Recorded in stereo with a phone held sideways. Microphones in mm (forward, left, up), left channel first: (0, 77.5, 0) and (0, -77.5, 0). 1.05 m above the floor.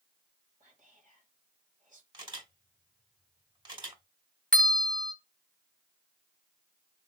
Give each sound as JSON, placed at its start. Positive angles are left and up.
{"t": 0.6, "sound": "whispering", "side_deg": -55, "distance_m": 2.0}
{"t": 2.1, "sound": "a camera shutter", "side_deg": -30, "distance_m": 2.5}
{"t": 4.5, "sound": "a bell", "side_deg": 5, "distance_m": 1.4}